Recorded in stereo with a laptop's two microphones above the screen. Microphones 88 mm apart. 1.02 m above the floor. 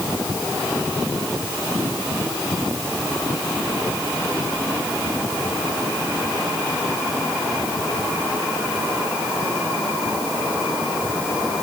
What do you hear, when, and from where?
Only background noise.